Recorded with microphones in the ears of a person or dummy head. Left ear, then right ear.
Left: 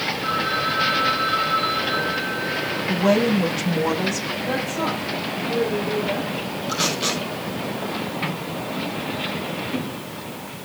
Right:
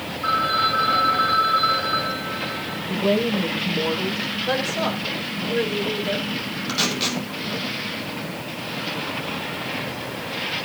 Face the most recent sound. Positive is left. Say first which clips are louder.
# even
turn(degrees=-30)  # may be behind; listen again after turning